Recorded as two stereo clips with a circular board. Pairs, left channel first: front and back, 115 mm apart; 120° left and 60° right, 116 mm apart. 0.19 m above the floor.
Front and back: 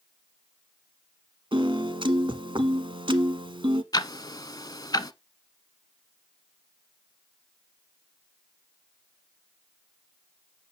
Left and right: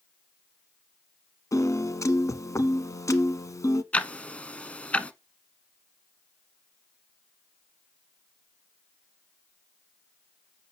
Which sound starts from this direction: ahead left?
Ticking, at 3.9 s.